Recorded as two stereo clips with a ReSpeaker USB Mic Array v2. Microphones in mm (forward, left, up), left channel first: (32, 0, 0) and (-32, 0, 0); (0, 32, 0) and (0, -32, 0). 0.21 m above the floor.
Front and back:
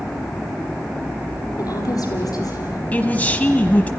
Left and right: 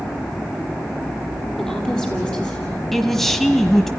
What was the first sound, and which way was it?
A woman speaking, 10° left.